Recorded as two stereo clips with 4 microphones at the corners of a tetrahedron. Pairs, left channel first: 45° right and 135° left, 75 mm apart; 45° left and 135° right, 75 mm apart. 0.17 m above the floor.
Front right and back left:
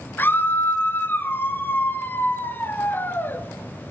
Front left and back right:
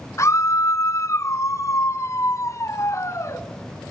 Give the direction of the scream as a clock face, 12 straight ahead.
12 o'clock.